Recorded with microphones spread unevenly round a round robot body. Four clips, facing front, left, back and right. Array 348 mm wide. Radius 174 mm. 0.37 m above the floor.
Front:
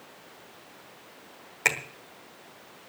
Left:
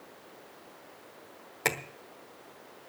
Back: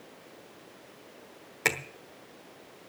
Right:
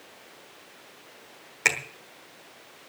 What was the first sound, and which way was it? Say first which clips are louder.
A finger snap: right 3 dB, front 1 dB; 145° left.